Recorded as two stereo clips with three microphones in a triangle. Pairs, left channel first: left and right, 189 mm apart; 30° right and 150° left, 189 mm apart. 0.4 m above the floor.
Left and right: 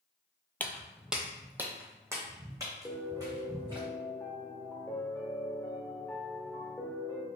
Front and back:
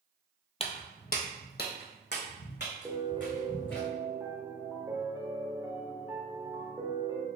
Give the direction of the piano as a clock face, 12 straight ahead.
8 o'clock.